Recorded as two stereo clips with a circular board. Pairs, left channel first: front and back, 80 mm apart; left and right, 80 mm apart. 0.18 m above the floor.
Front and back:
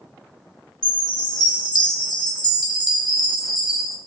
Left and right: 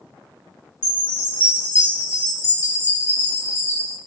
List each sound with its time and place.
0.8 s a chime: 30° left, 1.3 m